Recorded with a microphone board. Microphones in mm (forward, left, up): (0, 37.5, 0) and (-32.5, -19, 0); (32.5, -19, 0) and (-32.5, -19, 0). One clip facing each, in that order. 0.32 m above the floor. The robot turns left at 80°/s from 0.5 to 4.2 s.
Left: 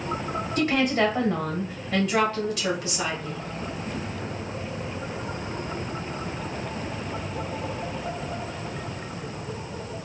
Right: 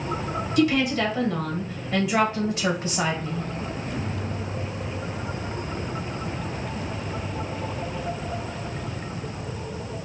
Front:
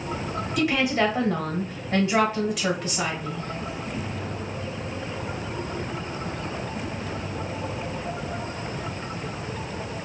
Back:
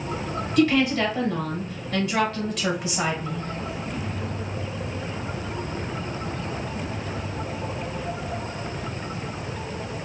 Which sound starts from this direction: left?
A woman speaking, at 0.6 s.